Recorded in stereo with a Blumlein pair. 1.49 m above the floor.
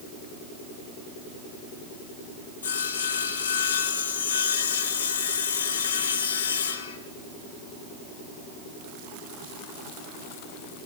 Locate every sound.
2.6 s sawing: 65° left, 2.5 m